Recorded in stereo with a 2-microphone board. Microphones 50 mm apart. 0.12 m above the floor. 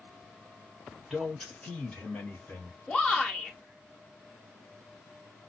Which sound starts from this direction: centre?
A man speaking, at 1.1 s.